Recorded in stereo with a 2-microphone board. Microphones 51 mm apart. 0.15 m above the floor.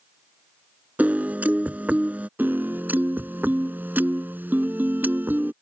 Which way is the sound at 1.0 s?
35° right (ahead or behind).